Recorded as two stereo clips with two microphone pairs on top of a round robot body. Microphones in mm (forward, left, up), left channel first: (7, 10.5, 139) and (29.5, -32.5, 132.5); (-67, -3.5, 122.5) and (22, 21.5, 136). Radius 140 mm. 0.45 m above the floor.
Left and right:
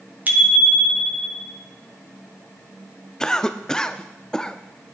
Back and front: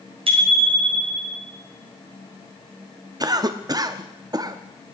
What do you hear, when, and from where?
0.3 s a bicycle bell: 10° right, 2 m; by 1.4 s 40° right, 3 m
3.2 s a cough: 35° left, 0.8 m